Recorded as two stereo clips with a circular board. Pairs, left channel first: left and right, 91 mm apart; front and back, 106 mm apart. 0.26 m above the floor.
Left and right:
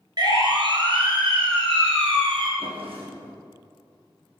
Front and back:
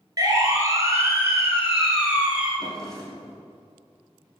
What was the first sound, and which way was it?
A siren, 130° right.